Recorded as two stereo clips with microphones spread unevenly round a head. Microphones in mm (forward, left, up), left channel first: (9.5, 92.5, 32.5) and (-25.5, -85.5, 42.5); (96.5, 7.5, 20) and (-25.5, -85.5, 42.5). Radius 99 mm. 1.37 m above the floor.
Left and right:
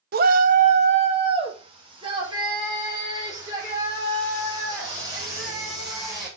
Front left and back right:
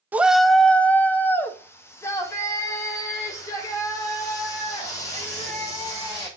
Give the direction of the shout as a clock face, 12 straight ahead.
2 o'clock.